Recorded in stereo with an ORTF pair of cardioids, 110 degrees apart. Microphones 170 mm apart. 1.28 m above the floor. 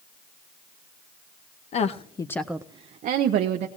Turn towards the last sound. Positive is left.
turn(degrees=-75)